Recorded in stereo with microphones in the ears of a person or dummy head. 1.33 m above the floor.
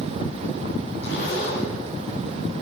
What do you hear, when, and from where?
1.0 s a zipper: 65° left (ahead or behind), 2.0 m